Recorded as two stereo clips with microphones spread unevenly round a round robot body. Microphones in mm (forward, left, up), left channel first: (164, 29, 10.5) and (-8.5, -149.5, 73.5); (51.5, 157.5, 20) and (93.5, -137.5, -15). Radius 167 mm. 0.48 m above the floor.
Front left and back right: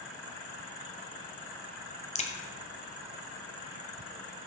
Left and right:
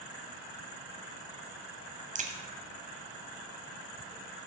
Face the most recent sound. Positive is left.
turn(degrees=-15)